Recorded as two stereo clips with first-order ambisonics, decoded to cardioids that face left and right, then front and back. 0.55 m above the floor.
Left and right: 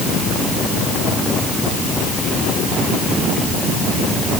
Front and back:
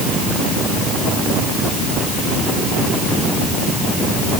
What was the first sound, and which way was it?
Only background noise.